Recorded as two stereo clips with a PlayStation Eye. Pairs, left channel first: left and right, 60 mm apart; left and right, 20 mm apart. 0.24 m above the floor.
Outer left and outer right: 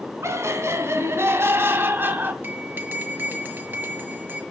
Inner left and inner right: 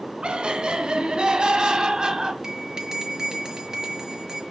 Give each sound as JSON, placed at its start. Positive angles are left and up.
{"t": 0.2, "sound": "laughter", "side_deg": -55, "distance_m": 2.5}
{"t": 2.4, "sound": "a bell", "side_deg": -35, "distance_m": 5.5}